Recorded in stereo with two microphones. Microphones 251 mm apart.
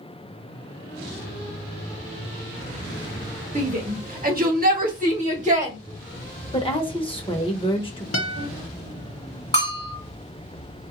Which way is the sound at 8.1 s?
65° left (ahead or behind).